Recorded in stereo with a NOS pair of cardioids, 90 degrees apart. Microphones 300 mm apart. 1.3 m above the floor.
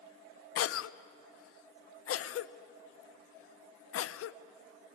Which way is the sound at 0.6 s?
50° left.